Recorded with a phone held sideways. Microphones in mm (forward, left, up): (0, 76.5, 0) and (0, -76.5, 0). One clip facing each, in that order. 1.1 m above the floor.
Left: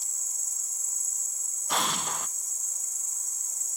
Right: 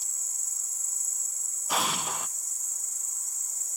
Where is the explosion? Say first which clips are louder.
Even; 5° right (ahead or behind), 0.7 m.